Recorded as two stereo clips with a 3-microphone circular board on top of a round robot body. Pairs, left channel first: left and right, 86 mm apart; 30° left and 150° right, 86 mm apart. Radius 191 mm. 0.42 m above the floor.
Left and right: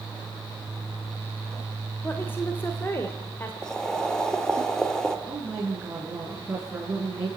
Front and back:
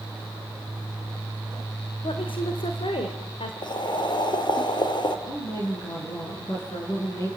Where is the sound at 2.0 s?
25° left, 2 m.